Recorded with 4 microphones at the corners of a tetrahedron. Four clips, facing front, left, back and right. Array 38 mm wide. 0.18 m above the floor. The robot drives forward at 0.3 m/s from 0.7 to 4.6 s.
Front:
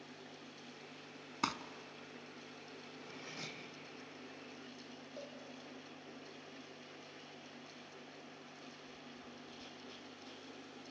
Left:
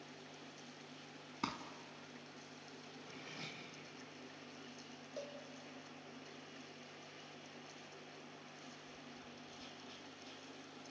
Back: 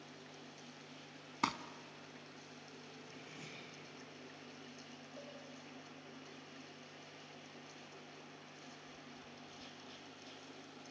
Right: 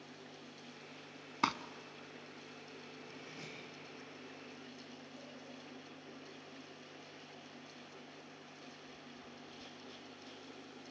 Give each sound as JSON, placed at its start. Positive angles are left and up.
{"t": 1.4, "sound": "crumpling", "azimuth_deg": -95, "distance_m": 0.9}
{"t": 3.0, "sound": "cutlery clinking", "azimuth_deg": 15, "distance_m": 4.5}
{"t": 5.2, "sound": "a cowbell", "azimuth_deg": 75, "distance_m": 4.5}